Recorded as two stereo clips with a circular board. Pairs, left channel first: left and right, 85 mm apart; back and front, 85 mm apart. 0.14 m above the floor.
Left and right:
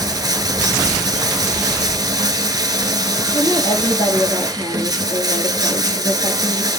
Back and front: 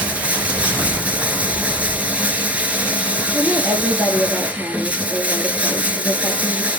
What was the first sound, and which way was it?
Running water, 70° right.